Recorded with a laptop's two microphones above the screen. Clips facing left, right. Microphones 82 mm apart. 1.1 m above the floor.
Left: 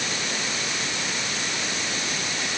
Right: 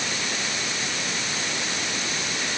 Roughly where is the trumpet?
I don't hear a trumpet.